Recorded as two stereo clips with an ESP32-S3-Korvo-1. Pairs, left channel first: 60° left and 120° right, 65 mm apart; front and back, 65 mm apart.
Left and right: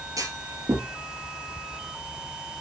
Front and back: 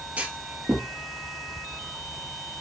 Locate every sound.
0.2 s a clunk: 115° right, 2.0 m